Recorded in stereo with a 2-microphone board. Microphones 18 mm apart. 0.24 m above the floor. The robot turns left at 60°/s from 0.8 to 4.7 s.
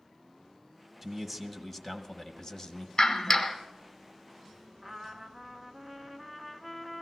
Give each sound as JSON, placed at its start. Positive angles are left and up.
{"t": 1.0, "sound": "a man speaking", "azimuth_deg": 180, "distance_m": 1.2}
{"t": 3.0, "sound": "a clap", "azimuth_deg": 55, "distance_m": 1.2}
{"t": 4.8, "sound": "a trumpet", "side_deg": -20, "distance_m": 1.0}